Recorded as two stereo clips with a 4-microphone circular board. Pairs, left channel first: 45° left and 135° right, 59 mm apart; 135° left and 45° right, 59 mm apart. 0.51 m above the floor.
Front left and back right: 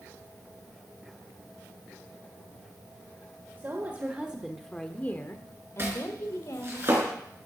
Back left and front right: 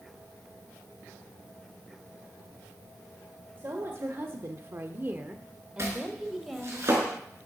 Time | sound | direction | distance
3.6 | a woman speaking | 85° right | 1.6 m
5.8 | chopping | 85° right | 4.5 m